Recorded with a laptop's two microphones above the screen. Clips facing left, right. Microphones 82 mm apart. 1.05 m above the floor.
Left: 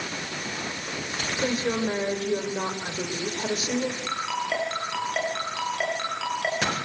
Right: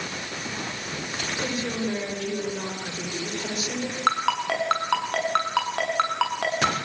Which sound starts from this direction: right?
A ringtone, at 4.1 s.